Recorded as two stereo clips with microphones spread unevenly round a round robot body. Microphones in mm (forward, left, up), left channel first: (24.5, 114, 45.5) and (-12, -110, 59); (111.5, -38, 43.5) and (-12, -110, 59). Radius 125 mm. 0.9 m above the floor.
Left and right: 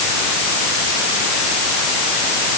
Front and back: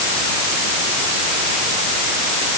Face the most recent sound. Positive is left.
No sound to turn to.